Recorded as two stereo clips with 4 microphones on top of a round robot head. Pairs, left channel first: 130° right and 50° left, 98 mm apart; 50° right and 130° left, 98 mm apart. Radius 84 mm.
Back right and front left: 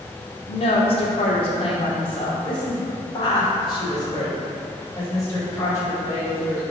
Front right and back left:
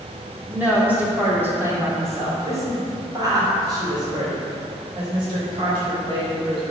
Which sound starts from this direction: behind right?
A woman speaking, at 0.5 s.